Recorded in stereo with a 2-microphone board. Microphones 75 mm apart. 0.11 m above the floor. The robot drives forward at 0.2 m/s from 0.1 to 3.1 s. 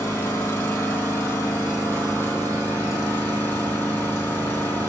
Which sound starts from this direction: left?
An engine running, at 0.0 s.